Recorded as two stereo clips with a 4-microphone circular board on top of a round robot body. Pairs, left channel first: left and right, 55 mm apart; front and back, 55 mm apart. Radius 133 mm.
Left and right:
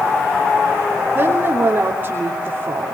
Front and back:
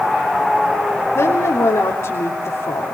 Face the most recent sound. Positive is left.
turn(degrees=-35)